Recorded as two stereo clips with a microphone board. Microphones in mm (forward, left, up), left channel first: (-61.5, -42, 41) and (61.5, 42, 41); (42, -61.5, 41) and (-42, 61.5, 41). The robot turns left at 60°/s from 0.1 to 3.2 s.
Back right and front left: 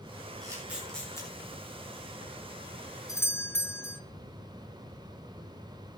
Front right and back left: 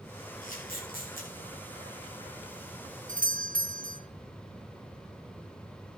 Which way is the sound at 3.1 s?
145° left.